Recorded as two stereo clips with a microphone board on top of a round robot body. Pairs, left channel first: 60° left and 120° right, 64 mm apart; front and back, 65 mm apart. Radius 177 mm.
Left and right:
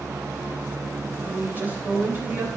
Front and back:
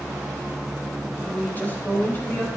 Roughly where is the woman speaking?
Ahead right.